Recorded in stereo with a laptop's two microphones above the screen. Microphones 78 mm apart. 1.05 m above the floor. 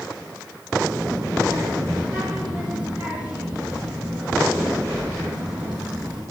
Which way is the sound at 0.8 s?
75° right (ahead or behind).